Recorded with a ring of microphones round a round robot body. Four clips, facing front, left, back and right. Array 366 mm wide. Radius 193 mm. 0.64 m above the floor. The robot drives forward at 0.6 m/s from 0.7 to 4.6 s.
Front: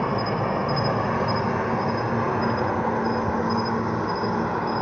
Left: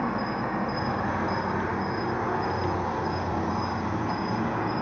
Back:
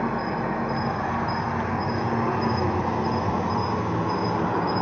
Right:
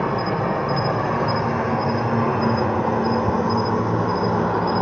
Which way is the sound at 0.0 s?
55° right.